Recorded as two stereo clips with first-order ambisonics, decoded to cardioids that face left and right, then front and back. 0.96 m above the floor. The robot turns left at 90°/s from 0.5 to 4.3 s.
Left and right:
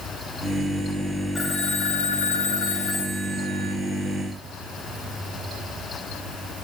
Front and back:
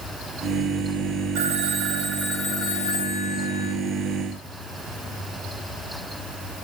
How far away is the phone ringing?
About 3 m.